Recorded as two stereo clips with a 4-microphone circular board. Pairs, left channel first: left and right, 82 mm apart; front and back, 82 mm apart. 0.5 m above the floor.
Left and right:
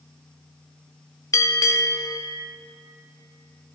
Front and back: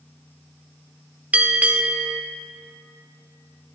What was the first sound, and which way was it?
A bell, 115° left.